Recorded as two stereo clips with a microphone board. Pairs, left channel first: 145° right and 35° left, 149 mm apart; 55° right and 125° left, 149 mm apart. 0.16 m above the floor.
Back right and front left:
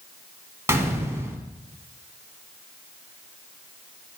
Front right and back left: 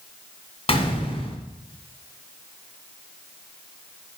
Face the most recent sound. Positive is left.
turn(degrees=-30)